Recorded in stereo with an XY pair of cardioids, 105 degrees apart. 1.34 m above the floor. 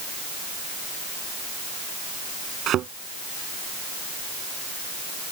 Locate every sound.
2.7 s a thud: 70° right